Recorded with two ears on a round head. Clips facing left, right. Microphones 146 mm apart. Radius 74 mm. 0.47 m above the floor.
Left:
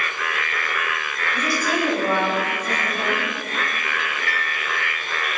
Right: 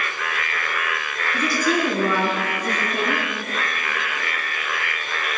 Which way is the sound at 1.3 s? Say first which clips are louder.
Right 2 dB; 75° right (ahead or behind).